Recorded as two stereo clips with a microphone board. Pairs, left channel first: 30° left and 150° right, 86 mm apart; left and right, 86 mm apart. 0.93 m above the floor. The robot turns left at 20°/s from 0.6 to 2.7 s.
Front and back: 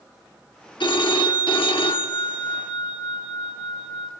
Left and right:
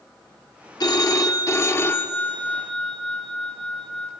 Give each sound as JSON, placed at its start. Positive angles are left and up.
{"t": 0.8, "sound": "a phone ringing", "azimuth_deg": 50, "distance_m": 1.0}